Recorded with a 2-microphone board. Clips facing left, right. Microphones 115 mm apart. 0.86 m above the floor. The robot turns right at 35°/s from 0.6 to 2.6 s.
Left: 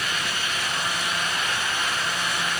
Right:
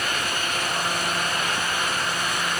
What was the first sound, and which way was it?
Only background noise.